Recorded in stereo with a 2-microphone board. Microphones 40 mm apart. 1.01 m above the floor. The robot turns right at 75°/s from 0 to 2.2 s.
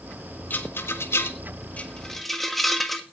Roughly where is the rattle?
Left.